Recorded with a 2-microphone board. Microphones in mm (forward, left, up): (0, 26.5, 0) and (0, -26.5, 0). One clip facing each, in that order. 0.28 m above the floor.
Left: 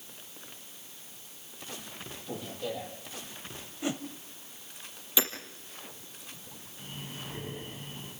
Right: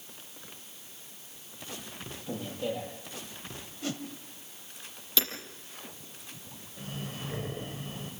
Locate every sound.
2.3 s a man speaking: 20° right (ahead or behind), 9.5 m
3.8 s a whoosh: 20° left (ahead or behind), 1.0 m
5.2 s hammering: 15° left (ahead or behind), 5 m
6.8 s breathing: 70° right (ahead or behind), 7 m